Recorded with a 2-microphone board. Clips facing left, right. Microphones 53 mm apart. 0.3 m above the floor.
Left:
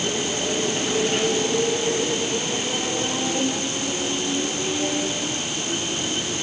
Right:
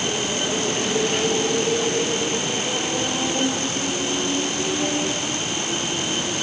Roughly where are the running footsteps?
No running footsteps in this recording.